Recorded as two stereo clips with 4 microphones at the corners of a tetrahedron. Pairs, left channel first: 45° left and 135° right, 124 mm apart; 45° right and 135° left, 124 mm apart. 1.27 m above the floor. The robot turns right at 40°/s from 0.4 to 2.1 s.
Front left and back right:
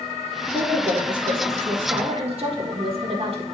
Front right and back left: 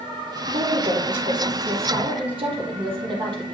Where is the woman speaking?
120° left, 1.8 m; by 3.5 s 175° right, 1.8 m.